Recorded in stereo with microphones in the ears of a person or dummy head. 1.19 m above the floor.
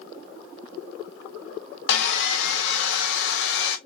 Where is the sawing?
70° left (ahead or behind), 0.7 m.